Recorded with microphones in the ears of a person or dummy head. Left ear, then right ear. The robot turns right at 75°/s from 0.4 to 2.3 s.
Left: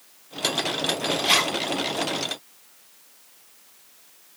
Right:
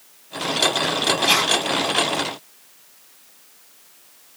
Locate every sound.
1.2 s a zipper: 15° right (ahead or behind), 1.9 m; by 1.6 s 15° left (ahead or behind), 1.9 m